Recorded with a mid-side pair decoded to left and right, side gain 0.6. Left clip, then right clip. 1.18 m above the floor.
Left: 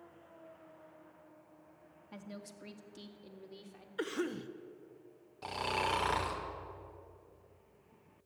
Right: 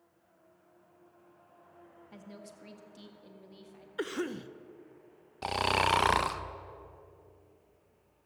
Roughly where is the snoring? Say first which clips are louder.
Right 7 dB; ahead right.